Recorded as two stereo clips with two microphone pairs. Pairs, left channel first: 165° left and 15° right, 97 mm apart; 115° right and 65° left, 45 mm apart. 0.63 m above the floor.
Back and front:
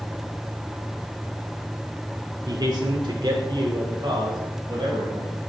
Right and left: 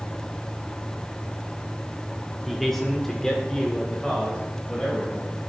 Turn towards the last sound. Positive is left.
turn(degrees=-45)